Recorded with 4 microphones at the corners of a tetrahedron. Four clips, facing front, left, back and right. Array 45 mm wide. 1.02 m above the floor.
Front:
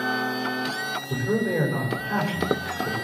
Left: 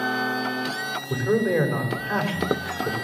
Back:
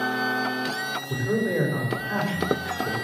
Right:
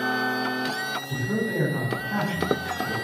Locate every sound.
1.1 s a man speaking: 95° left, 4.5 m